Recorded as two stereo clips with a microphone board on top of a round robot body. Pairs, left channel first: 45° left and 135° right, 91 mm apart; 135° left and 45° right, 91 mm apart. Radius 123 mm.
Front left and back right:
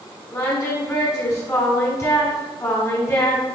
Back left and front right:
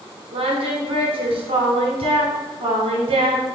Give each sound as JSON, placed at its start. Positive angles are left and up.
{"t": 0.3, "sound": "singing", "azimuth_deg": -15, "distance_m": 0.9}